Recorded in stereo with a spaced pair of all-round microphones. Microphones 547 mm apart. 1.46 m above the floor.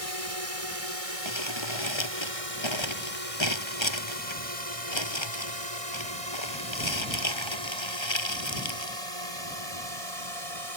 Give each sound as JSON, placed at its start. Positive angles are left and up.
{"t": 0.0, "sound": "a drone", "side_deg": -80}
{"t": 1.2, "sound": "crumpling", "side_deg": 50}